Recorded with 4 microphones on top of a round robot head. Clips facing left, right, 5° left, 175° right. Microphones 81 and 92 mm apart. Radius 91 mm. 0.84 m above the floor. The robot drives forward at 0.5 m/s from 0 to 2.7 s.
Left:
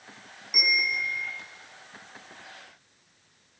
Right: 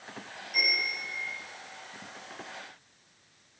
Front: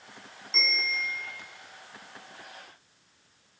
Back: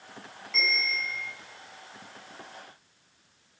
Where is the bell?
70° left, 1.9 m; by 1.3 s 80° left, 1.8 m.